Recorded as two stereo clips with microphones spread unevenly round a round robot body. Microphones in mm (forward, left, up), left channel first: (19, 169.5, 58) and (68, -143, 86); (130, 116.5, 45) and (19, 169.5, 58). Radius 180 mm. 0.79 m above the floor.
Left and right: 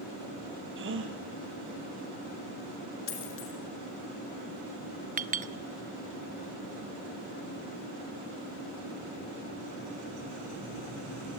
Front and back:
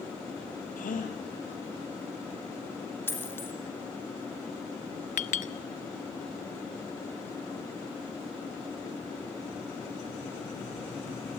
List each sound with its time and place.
0.8 s a gasp: 30° right, 4 m
3.1 s a dropped coin: 50° left, 5 m
5.2 s a clink: 15° right, 1.3 m